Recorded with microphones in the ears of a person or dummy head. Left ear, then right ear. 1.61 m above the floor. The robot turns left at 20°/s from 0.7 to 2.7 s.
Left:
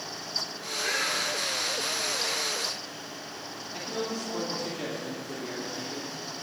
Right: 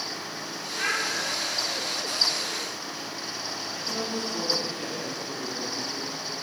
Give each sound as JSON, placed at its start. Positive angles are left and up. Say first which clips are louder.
{"t": 0.8, "sound": "a child speaking", "louder": "right 2 dB", "side_deg": -60, "distance_m": 6.0}
{"t": 3.7, "sound": "a man speaking", "louder": "even", "side_deg": 30, "distance_m": 3.0}